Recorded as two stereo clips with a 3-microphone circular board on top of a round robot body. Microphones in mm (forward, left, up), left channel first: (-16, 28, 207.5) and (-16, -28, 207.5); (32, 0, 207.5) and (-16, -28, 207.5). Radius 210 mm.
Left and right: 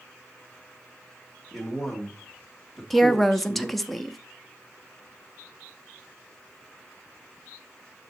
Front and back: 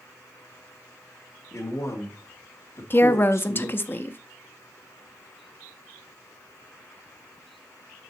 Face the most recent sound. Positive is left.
turn(degrees=5)